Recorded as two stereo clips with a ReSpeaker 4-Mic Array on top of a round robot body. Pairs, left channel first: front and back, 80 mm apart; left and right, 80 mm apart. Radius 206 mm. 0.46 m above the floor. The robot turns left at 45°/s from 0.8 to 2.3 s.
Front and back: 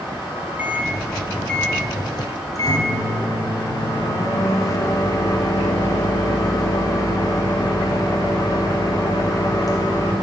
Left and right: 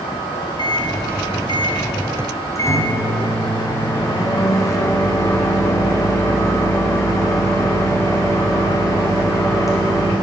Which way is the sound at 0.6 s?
110° left.